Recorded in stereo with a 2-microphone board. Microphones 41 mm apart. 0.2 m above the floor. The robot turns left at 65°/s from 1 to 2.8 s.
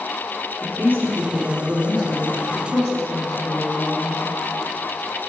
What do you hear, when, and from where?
0.6 s a woman speaking: 130° right, 2 m; by 4.2 s 115° left, 2 m